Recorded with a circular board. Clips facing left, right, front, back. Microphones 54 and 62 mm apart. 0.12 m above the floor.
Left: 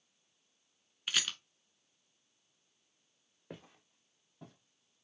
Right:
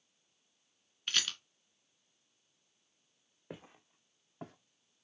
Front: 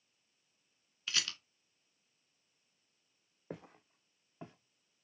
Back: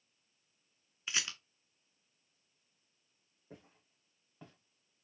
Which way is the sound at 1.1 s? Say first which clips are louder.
Even, even; 160° left.